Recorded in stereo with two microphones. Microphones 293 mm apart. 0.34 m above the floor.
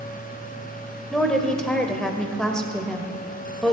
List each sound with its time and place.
1.1 s a woman speaking: 5° left (ahead or behind), 1.1 m